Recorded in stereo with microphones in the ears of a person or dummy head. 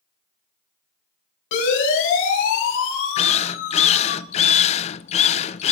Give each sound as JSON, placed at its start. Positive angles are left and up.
{"t": 1.5, "sound": "a siren", "side_deg": 70, "distance_m": 9.0}
{"t": 3.2, "sound": "a drill", "side_deg": 30, "distance_m": 0.8}